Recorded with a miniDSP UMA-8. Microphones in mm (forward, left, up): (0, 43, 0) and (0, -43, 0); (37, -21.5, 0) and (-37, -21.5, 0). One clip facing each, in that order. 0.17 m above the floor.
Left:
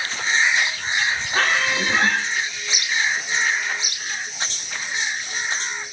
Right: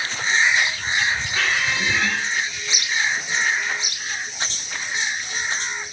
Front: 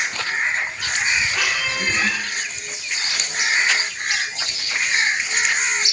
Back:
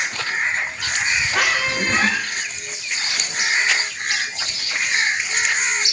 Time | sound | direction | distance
1.3 | a squeak | 140° left | 2.5 m